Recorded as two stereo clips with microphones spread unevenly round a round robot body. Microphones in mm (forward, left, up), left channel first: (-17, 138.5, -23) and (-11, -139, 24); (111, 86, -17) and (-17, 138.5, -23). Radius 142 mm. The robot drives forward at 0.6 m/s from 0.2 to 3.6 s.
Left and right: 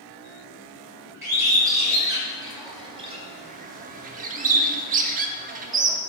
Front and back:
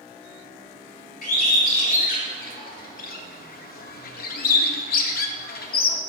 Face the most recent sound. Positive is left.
turn(degrees=-25)